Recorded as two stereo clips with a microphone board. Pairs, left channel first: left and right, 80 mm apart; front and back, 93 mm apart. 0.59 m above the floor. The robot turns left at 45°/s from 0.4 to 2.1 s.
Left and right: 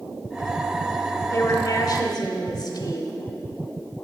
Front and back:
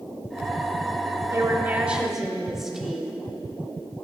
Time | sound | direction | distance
1.3 | a woman speaking | 130° left | 1.3 m